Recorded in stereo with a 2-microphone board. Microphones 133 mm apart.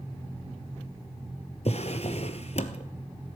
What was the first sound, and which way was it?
A drawer, 55° left (ahead or behind).